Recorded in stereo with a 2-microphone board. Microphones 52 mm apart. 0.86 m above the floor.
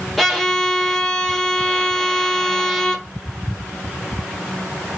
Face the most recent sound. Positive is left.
turn(degrees=0)  # may be behind; listen again after turning